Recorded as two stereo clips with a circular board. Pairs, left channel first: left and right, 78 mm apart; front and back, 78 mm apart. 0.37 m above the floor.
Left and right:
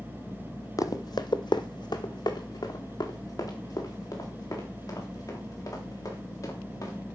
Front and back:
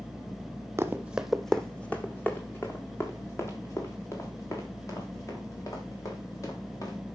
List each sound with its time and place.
0.8 s running footsteps: 125° left, 1.0 m; by 7.0 s 45° left, 7 m